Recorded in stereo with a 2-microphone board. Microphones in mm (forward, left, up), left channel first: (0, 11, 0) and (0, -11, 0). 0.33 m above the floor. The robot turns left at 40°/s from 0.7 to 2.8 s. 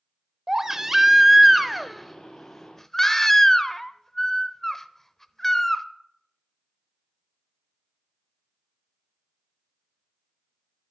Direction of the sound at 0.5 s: 15° right (ahead or behind).